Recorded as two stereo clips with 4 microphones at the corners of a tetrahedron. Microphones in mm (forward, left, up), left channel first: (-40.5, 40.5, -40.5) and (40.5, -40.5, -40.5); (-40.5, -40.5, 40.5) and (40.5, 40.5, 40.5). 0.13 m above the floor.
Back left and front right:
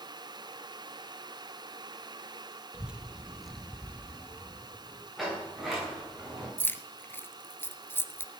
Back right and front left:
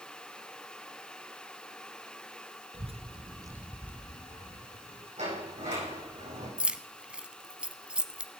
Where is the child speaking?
35° left, 1.7 m; by 5.1 s 155° right, 2 m.